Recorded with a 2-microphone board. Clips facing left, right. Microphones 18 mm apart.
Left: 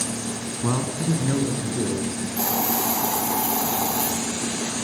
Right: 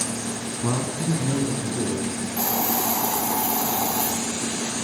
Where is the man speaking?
20° left (ahead or behind), 1.1 m; by 2.3 s 70° left (ahead or behind), 3 m.